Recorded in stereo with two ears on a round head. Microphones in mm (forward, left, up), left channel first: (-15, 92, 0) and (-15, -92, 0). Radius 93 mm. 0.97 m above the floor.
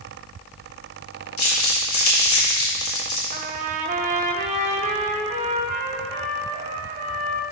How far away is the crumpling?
About 2.5 m.